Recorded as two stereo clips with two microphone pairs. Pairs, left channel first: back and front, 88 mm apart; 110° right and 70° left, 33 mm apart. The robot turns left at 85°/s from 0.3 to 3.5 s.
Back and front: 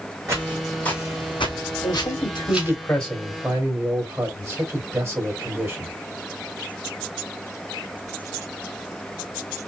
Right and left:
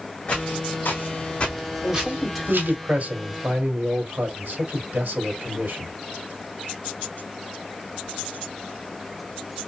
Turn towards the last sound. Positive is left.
turn(degrees=55)